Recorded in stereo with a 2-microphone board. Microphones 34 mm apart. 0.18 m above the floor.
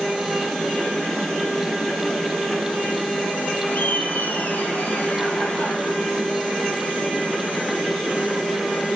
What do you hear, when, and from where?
3.7 s laughter: 75° left (ahead or behind), 6 m